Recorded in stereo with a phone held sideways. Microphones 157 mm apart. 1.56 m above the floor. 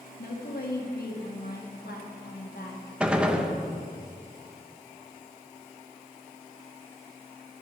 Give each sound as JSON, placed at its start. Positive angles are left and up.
{"t": 0.2, "sound": "a woman speaking", "side_deg": 75, "distance_m": 1.9}
{"t": 3.0, "sound": "a gunshot", "side_deg": -5, "distance_m": 0.8}